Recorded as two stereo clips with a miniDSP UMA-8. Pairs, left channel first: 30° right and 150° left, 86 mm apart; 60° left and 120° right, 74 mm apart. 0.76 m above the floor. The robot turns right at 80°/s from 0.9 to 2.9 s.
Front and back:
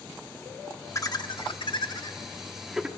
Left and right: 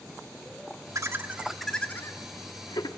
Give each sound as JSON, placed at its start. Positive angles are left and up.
{"t": 0.9, "sound": "laughter", "azimuth_deg": -80, "distance_m": 1.1}